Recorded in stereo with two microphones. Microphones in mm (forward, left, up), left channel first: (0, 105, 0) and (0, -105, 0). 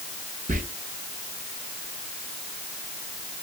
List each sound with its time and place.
0.5 s whispering: 40° right (ahead or behind), 0.8 m